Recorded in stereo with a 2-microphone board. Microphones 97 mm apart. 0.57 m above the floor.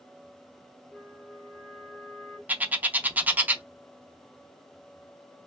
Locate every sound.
0.9 s a flute: centre (ahead or behind), 1.4 m
2.5 s a bird: 15° right (ahead or behind), 0.6 m